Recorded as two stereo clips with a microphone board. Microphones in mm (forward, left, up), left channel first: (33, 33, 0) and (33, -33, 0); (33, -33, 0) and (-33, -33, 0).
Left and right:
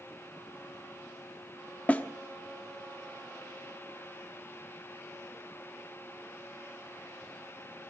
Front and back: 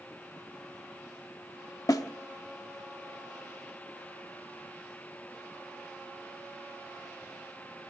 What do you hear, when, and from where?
1.9 s a snare drum: 25° left, 0.9 m